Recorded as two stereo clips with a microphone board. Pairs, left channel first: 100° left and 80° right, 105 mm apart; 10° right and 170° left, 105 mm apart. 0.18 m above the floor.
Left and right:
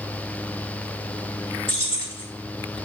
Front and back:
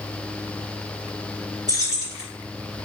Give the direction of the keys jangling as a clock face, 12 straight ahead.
8 o'clock.